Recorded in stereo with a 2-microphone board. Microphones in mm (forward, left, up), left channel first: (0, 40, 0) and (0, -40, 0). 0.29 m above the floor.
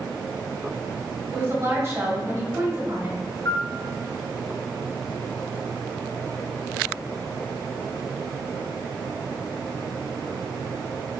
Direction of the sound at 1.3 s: 35° right (ahead or behind).